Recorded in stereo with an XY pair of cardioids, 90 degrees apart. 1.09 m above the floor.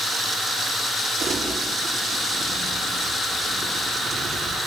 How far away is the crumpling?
About 7 m.